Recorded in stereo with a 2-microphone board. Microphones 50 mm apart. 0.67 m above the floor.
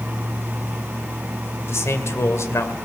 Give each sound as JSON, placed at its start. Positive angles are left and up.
{"t": 1.7, "sound": "a man speaking", "side_deg": 70, "distance_m": 2.5}